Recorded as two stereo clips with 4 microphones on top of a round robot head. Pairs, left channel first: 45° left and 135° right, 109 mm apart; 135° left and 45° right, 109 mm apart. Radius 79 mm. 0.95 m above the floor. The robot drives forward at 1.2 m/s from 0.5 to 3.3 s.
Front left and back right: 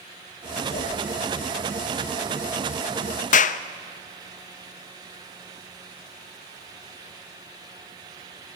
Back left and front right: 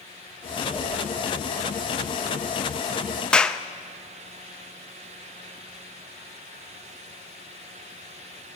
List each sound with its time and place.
0.7 s a whoosh: 65° left, 8.5 m
3.3 s a clap: 50° left, 0.6 m